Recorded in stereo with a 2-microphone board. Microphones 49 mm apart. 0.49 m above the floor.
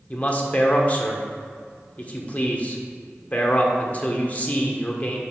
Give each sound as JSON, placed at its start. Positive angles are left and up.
{"t": 0.1, "sound": "a man speaking", "side_deg": 30, "distance_m": 1.3}